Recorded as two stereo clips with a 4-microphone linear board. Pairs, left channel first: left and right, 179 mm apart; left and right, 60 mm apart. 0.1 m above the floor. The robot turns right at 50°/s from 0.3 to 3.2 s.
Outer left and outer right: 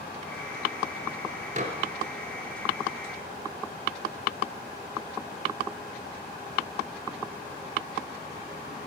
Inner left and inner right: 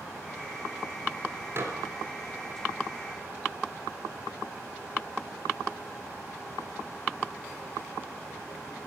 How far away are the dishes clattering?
About 1.1 m.